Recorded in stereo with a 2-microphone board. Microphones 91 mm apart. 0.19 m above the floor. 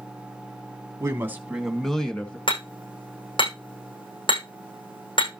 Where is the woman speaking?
35° right (ahead or behind), 1.3 m; by 2.4 s 15° left (ahead or behind), 2 m.